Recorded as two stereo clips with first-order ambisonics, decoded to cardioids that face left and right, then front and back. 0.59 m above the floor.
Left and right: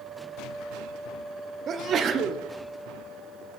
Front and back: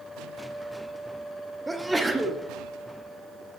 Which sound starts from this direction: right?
A sneeze, at 1.7 s.